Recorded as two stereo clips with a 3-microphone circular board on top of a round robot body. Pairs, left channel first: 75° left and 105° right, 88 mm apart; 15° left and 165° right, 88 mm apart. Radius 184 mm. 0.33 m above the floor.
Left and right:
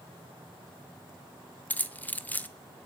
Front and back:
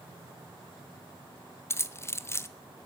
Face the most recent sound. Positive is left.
turn(degrees=25)